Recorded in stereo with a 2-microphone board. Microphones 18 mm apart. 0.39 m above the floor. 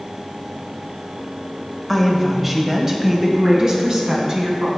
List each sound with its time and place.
1.9 s a woman speaking: centre (ahead or behind), 1.2 m; by 4.8 s 40° right (ahead or behind), 3 m